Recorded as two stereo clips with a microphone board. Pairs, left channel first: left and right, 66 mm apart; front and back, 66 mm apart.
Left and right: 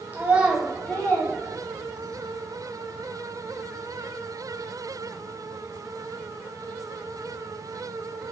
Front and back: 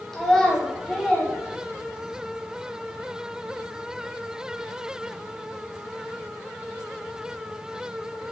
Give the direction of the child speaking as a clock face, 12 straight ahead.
3 o'clock.